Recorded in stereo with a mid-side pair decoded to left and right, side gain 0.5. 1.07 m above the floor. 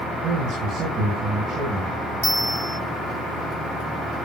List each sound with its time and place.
0.2 s a man speaking: 60° right, 5 m
2.2 s a bell: 5° right, 1.5 m